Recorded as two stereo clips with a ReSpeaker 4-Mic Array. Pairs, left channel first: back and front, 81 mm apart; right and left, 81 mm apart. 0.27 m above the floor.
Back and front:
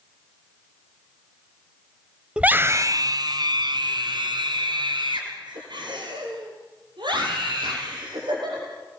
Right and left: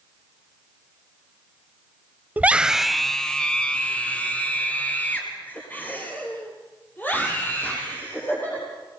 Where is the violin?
No violin in this recording.